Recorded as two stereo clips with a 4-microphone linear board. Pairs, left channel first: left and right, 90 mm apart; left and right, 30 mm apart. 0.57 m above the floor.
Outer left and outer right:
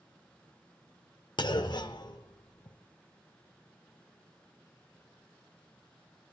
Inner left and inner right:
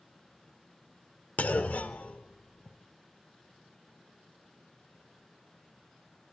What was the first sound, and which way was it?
A clunk, 55° left (ahead or behind).